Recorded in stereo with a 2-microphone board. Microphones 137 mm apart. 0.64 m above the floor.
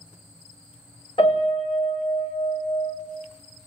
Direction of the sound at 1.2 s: 50° left (ahead or behind).